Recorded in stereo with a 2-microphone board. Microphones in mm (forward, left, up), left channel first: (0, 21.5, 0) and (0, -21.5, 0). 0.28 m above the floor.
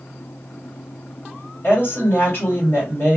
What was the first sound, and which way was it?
A woman speaking, 45° left (ahead or behind).